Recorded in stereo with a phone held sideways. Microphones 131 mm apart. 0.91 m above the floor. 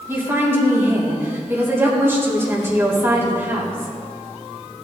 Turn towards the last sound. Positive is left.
turn(degrees=-20)  # may be behind; listen again after turning